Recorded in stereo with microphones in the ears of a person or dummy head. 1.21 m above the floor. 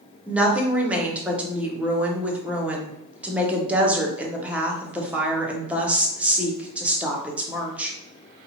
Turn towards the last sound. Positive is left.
turn(degrees=-5)  # may be behind; listen again after turning